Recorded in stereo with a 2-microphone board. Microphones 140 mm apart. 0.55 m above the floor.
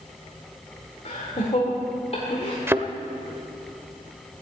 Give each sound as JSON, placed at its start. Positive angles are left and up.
{"t": 1.1, "sound": "laughter", "side_deg": 55, "distance_m": 2.0}
{"t": 2.7, "sound": "a thud", "side_deg": -15, "distance_m": 0.6}